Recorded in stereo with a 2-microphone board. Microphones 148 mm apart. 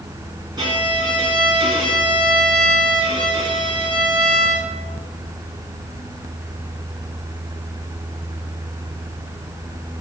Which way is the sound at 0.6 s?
30° right (ahead or behind).